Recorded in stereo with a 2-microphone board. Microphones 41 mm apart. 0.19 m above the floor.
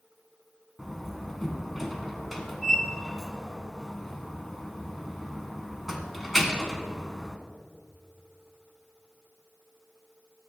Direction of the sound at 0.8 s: 5° right (ahead or behind).